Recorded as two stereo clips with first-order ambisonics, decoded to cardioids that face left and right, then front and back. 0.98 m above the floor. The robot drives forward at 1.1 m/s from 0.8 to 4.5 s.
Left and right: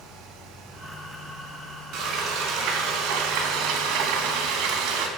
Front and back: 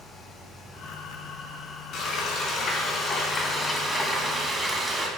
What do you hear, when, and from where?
1.9 s frying: 50° right, 3.5 m; by 5.1 s 100° right, 3 m